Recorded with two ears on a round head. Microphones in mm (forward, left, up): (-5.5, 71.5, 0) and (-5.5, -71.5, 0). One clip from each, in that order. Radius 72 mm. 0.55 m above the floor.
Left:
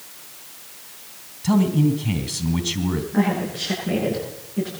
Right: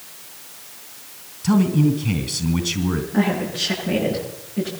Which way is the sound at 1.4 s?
5° left (ahead or behind).